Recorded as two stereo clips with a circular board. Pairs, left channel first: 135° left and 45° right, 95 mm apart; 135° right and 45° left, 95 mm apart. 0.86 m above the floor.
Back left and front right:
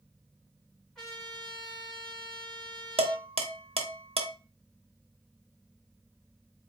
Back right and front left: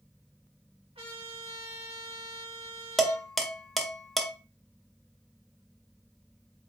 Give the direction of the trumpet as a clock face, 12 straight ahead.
10 o'clock.